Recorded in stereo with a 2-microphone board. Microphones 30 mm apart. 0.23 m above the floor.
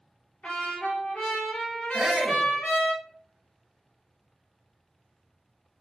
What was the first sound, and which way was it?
A trumpet, 45° left (ahead or behind).